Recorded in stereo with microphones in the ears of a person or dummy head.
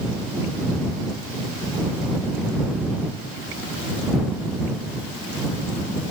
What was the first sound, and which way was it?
Ticking, 85° left.